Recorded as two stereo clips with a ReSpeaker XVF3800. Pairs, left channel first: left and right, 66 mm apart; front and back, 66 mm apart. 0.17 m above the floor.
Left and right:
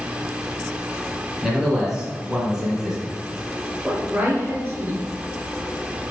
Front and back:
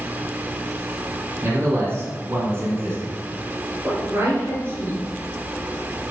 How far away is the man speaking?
About 1.8 m.